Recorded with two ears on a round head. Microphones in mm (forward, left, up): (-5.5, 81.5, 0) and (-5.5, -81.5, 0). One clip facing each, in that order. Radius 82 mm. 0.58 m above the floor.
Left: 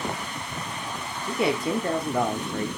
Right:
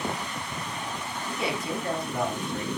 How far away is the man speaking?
About 1.3 m.